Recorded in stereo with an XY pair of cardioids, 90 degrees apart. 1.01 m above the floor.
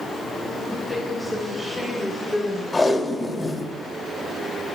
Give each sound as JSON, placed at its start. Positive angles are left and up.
{"t": 0.7, "sound": "a woman speaking", "azimuth_deg": 30, "distance_m": 6.0}
{"t": 2.7, "sound": "tape being pulled", "azimuth_deg": 25, "distance_m": 2.5}